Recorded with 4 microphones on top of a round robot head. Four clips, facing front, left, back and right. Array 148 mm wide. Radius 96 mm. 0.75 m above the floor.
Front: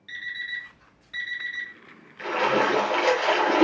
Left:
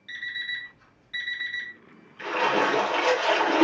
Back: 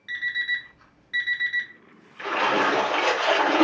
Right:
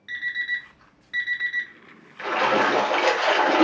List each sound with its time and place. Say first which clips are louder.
0.1 s an alarm clock: right 6 dB, back 6 dB; 135° right, 0.7 m
2.2 s a splash: right 3 dB, even; 90° right, 1.0 m